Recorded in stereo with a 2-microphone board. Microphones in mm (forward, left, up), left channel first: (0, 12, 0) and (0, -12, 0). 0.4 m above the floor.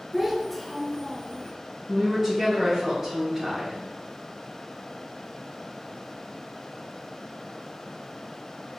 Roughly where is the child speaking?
Right.